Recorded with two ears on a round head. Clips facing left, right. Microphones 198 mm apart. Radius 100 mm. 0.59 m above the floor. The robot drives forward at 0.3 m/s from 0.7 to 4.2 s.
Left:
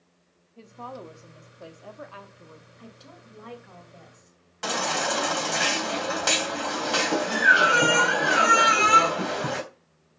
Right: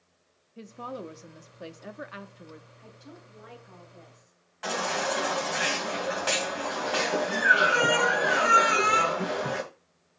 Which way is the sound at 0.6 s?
20° right (ahead or behind).